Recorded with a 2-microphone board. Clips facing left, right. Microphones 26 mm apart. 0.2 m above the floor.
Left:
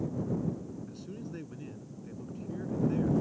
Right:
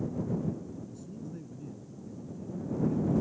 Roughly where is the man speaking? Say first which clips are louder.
Left 1 dB; left.